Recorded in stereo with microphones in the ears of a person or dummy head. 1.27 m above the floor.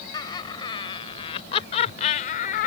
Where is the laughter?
25° left (ahead or behind); by 2.7 s 50° left (ahead or behind).